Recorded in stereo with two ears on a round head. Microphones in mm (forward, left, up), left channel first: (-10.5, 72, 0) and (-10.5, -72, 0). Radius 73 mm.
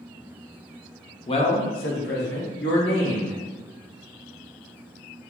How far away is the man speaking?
About 0.6 m.